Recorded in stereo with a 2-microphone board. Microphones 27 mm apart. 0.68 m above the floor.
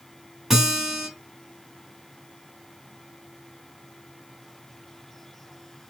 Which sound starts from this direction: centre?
A guitar, at 0.5 s.